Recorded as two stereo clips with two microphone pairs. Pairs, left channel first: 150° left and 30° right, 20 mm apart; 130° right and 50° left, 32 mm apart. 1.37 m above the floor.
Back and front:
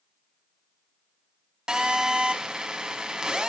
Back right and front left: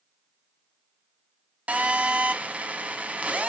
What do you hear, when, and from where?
1.7 s a phone buzzing: 15° left, 1.8 m